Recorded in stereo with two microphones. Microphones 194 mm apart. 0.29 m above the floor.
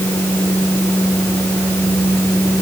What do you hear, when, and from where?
Only background noise.